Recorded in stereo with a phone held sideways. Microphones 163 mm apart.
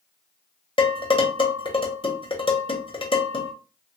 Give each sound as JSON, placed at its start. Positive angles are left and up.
{"t": 0.8, "sound": "dishes clattering", "side_deg": 30, "distance_m": 0.8}